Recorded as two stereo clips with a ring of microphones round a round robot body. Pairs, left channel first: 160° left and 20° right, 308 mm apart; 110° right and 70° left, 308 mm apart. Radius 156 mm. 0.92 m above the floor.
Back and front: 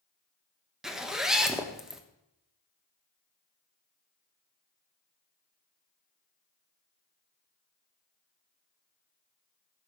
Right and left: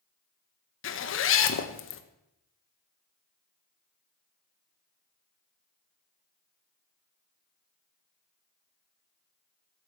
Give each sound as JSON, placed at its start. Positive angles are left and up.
{"t": 0.8, "sound": "a zipper", "azimuth_deg": -110, "distance_m": 1.1}